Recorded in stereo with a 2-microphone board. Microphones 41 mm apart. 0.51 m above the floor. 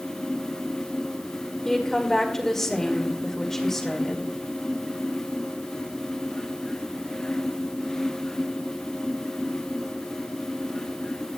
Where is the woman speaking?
10° left (ahead or behind), 2.0 m.